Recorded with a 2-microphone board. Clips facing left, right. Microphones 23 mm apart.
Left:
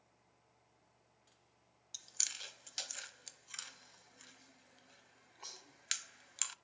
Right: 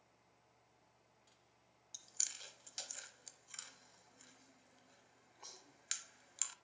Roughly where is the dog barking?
No dog barking in this recording.